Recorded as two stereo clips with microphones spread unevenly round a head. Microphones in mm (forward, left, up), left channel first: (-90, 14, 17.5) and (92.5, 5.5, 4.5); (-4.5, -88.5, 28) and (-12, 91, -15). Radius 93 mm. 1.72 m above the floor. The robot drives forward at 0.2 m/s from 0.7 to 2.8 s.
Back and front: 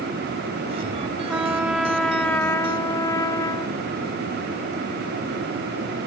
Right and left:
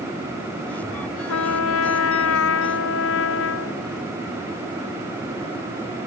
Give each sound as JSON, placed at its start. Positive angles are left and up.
{"t": 1.3, "sound": "a trumpet", "azimuth_deg": -80}